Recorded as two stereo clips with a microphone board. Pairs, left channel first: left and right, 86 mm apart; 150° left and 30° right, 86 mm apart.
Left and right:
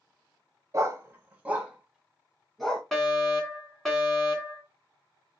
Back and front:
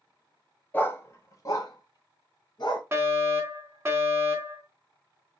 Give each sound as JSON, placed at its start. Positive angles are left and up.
{"t": 0.7, "sound": "a dog barking", "azimuth_deg": -140, "distance_m": 0.8}
{"t": 2.9, "sound": "a fire alarm", "azimuth_deg": 10, "distance_m": 1.8}